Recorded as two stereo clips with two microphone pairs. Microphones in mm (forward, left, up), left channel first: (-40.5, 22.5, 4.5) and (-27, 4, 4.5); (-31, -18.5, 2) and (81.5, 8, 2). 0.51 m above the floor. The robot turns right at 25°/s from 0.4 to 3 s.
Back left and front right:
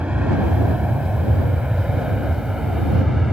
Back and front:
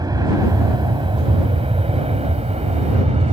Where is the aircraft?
40° right; by 3.4 s 20° left.